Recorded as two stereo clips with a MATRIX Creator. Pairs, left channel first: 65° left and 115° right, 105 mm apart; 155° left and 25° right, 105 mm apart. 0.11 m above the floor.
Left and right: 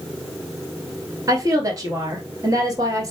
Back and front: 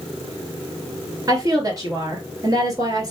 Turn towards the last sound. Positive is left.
turn(degrees=-65)